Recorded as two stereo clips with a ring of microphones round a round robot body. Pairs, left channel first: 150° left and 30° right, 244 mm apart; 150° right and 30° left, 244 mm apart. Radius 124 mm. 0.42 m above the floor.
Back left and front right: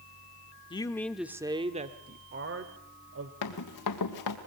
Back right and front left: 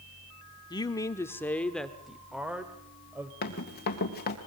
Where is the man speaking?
170° left, 0.9 m; by 3.3 s 50° right, 1.8 m.